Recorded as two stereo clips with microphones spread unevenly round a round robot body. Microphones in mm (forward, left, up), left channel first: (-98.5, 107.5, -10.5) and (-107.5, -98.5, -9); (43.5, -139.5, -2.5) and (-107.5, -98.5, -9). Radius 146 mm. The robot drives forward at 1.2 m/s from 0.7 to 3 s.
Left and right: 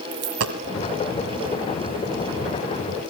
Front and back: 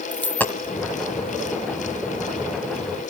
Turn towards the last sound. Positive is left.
turn(degrees=-150)